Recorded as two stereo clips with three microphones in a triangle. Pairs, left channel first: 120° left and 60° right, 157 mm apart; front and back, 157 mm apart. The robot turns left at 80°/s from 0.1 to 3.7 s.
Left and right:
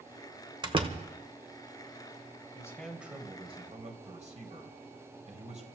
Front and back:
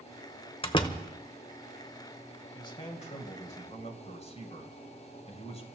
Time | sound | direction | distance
0.6 | a door slam | 20° right | 1.0 m
2.5 | a man speaking | 60° left | 2.5 m